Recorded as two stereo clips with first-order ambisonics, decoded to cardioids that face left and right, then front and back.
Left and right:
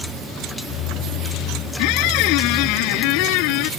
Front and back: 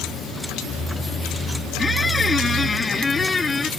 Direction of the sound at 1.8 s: 80° left.